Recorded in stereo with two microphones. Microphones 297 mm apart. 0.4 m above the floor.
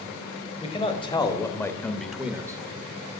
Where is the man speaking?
20° left (ahead or behind), 1.4 m; by 2.6 s 15° right (ahead or behind), 0.8 m.